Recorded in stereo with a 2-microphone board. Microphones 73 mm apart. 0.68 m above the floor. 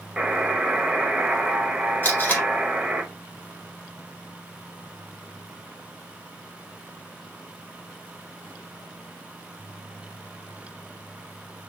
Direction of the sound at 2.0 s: 30° left (ahead or behind).